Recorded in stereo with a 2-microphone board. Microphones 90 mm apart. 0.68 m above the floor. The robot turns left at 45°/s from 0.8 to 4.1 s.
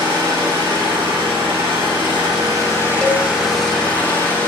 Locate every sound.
0.0 s an engine running: 55° right, 6 m; by 4.5 s 155° left, 6 m
3.0 s a cowbell: 5° left (ahead or behind), 0.7 m; by 3.2 s 5° right (ahead or behind), 0.7 m